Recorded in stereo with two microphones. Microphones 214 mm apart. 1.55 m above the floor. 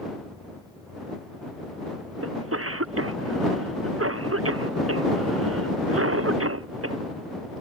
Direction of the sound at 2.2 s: 75° right (ahead or behind).